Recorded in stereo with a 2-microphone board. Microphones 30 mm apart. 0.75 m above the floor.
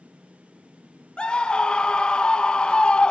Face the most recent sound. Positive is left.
turn(degrees=35)  # may be behind; listen again after turning